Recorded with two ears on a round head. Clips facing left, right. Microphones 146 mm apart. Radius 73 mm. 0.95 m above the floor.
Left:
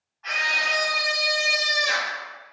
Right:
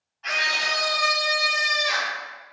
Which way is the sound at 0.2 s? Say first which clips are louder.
Right 1 dB; 35° right (ahead or behind).